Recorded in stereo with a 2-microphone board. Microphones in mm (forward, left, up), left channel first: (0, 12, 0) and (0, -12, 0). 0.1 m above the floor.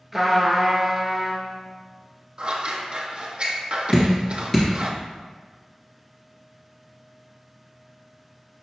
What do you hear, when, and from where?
0.1 s a trumpet: 5° right (ahead or behind), 0.8 m
2.4 s scissors: 45° right (ahead or behind), 0.6 m
3.9 s dripping: 15° left (ahead or behind), 1.6 m